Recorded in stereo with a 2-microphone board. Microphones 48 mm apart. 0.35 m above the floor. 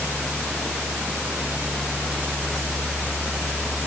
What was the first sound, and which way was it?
Only background noise.